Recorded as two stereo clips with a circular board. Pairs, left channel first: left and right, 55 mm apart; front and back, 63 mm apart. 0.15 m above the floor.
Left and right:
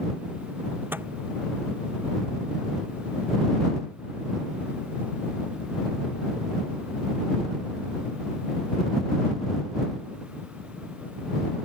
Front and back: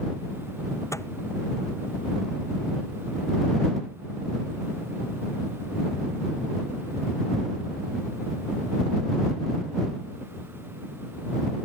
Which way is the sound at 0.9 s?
40° right.